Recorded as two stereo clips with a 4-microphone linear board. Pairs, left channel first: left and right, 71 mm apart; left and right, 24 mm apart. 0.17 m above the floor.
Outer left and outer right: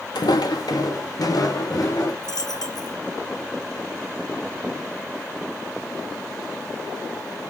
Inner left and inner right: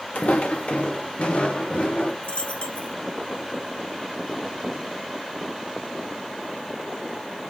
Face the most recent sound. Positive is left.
turn(degrees=65)  # may be behind; listen again after turning